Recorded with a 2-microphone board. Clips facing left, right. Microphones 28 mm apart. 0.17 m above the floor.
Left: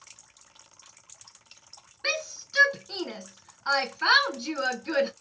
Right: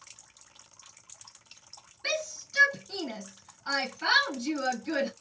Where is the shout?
30° left (ahead or behind), 2.5 m.